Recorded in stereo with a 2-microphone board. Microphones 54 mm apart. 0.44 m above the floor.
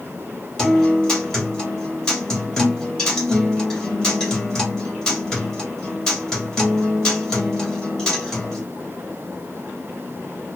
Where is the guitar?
10° left (ahead or behind), 1.6 m.